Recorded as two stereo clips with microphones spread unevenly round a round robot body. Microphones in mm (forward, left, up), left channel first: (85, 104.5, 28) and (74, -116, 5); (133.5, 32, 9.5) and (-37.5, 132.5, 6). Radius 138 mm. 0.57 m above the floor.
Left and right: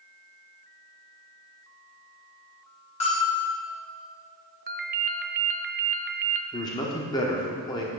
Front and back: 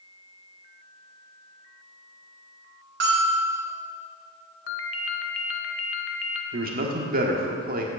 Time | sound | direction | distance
3.0 | a bell | 155° left | 2.5 m
4.7 | a ringtone | 40° right | 0.8 m
6.5 | a man speaking | 160° left | 1.3 m